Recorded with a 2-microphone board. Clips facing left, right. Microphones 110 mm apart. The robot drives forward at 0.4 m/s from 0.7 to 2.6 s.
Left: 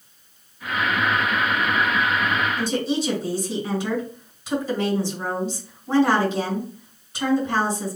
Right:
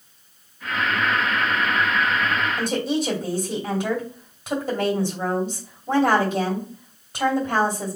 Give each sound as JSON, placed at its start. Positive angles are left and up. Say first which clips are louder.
{"t": 2.6, "sound": "a woman speaking", "louder": "even", "side_deg": -50, "distance_m": 2.0}